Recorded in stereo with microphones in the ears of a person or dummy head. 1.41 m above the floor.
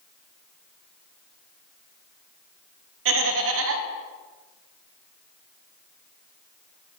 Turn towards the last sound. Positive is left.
turn(degrees=-65)  # may be behind; listen again after turning